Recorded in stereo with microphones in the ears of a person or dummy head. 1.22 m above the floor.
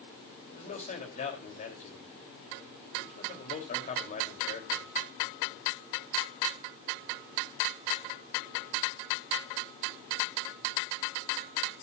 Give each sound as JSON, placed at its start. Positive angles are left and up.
{"t": 0.5, "sound": "a man speaking", "side_deg": 40, "distance_m": 3.0}